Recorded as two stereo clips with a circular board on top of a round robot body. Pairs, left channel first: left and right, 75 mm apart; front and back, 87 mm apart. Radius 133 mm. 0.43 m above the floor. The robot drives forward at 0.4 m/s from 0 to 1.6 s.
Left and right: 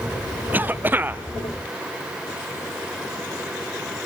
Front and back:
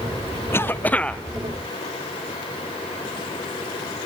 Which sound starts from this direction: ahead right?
A cough, at 0.5 s.